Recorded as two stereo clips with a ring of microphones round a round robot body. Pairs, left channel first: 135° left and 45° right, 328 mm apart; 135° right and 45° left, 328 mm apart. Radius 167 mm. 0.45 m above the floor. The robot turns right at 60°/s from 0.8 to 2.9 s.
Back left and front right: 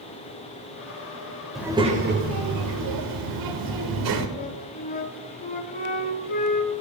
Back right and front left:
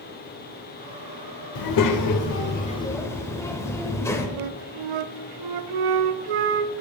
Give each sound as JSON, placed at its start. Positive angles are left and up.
{"t": 1.6, "sound": "a child speaking", "azimuth_deg": -135, "distance_m": 1.2}
{"t": 4.4, "sound": "a flute", "azimuth_deg": 70, "distance_m": 0.5}